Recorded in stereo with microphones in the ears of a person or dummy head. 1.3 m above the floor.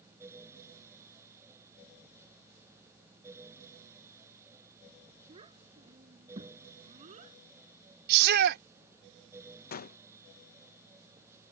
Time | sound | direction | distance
5.3 | a child speaking | 35° right (ahead or behind) | ?
8.1 | a shout | 60° right (ahead or behind) | ?
9.7 | a gunshot | 50° left (ahead or behind) | ?